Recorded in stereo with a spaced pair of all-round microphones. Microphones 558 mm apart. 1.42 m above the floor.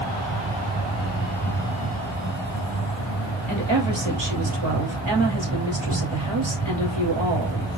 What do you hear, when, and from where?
0.0 s an insect: 5° left (ahead or behind), 3.5 m
3.5 s a woman speaking: 50° right (ahead or behind), 3 m